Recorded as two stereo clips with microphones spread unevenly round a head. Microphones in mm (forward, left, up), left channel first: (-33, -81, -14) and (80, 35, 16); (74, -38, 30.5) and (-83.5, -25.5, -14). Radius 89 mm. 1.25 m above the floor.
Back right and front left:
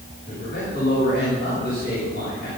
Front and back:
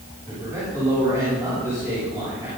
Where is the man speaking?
110° right, 8.5 m.